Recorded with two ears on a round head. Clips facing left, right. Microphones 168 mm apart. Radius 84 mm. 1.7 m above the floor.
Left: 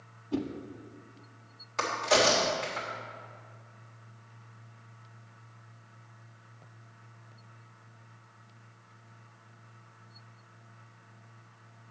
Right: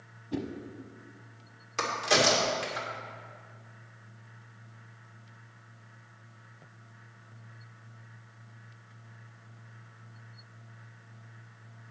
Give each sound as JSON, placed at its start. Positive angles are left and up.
{"t": 0.3, "sound": "a whoosh", "side_deg": -15, "distance_m": 0.9}
{"t": 1.8, "sound": "a crack", "side_deg": -35, "distance_m": 2.5}